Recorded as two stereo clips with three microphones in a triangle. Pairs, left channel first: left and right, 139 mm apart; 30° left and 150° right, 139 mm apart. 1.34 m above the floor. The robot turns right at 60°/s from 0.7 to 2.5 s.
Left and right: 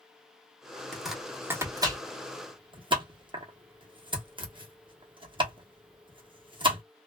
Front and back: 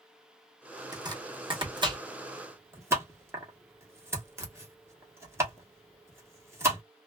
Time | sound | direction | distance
0.9 | chopping | 170° left | 1.0 m